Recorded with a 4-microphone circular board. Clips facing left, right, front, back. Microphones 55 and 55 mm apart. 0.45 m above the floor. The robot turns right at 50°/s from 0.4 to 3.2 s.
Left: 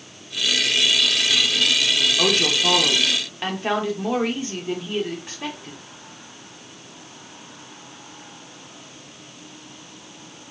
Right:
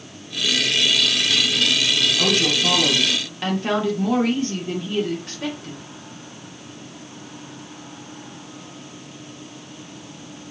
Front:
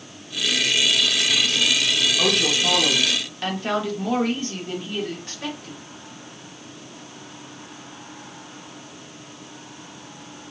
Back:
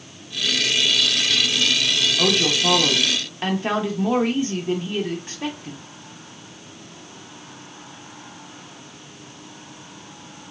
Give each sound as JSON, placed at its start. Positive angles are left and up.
{"t": 2.2, "sound": "a woman speaking", "azimuth_deg": 95, "distance_m": 0.7}